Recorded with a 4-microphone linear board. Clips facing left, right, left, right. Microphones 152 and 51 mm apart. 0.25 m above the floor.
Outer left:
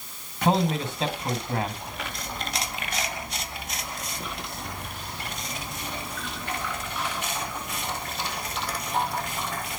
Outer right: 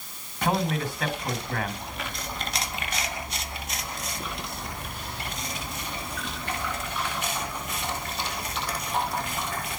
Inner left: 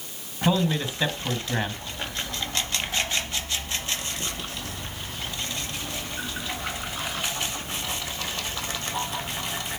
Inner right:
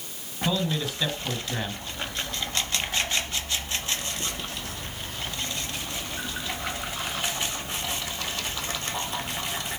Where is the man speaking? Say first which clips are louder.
Outer left 3 dB, inner left 3 dB; 25° left (ahead or behind), 1.6 m.